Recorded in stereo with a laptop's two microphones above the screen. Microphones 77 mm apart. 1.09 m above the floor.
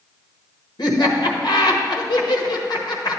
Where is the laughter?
65° left (ahead or behind), 1.2 m.